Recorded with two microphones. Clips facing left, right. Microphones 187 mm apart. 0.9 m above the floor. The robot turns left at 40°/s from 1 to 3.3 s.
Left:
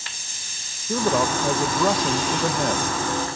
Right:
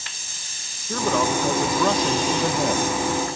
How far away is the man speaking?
About 0.9 m.